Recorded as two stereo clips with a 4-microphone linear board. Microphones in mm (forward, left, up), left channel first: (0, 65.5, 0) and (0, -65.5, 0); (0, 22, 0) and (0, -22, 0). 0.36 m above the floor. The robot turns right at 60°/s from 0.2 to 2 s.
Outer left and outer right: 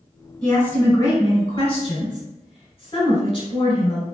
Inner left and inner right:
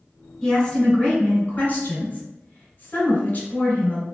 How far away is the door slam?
No door slam in this recording.